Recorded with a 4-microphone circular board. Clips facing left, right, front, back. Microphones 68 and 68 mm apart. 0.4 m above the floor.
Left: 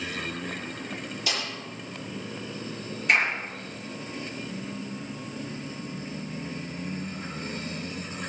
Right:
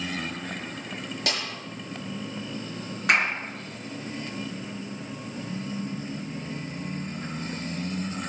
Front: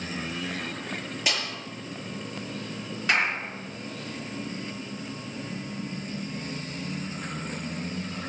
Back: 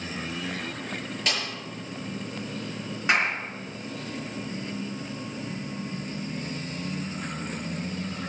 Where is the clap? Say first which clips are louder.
Even, back 1 dB; 110° right, 4 m.